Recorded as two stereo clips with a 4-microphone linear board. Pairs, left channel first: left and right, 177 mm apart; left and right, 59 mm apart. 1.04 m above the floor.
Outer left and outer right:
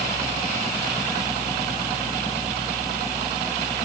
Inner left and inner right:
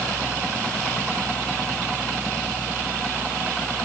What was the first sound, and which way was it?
Only background noise.